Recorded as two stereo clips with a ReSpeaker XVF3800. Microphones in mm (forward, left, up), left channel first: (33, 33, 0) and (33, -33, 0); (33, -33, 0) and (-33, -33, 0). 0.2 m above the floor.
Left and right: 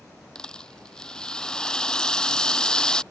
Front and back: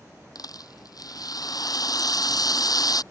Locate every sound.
0.3 s a rattle: 10° left